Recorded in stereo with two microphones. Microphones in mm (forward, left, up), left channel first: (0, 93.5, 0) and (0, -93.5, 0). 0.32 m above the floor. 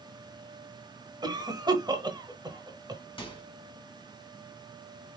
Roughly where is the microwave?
Left.